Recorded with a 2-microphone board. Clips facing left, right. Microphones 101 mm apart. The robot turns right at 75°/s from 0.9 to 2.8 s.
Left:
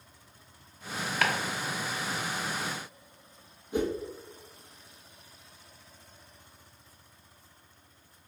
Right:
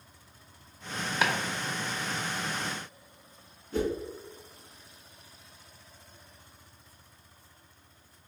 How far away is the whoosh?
About 1.1 m.